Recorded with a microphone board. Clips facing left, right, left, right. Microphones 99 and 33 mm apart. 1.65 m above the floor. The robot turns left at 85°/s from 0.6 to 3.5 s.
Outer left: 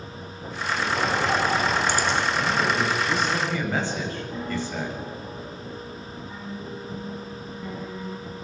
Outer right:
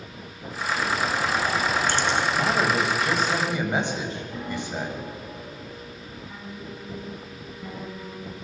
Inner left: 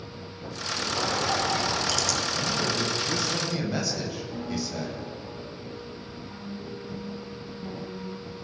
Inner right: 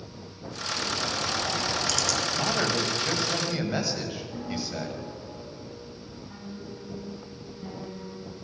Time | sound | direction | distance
1.0 | a bird | 95° left | 4 m
2.4 | a man speaking | 65° right | 8 m
4.3 | a piano | centre (ahead or behind) | 4.5 m